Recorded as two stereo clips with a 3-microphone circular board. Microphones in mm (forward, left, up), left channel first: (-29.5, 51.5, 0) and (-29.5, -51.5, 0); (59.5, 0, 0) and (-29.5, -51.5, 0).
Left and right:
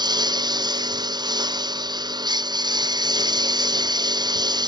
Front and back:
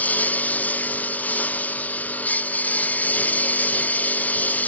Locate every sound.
0.0 s a lawn mower: 45° right